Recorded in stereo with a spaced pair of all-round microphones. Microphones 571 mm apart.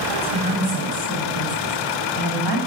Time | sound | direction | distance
0.1 | a woman speaking | 40° right (ahead or behind) | 9 m